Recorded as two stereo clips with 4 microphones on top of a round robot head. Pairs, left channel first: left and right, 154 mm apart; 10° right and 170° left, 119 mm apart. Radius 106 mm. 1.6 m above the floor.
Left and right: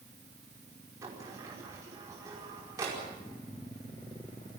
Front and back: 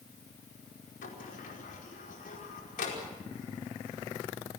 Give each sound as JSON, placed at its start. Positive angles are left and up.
{"t": 1.0, "sound": "a sliding door", "azimuth_deg": -15, "distance_m": 5.0}